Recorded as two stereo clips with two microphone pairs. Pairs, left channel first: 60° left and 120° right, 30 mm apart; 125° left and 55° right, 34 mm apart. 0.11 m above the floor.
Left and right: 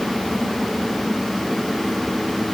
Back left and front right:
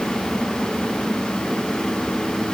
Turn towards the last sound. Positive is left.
No sound to turn to.